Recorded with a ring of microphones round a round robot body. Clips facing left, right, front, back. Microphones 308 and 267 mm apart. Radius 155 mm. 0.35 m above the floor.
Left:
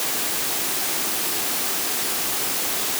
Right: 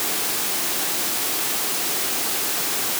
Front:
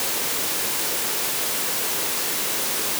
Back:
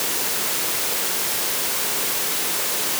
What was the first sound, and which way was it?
Only background noise.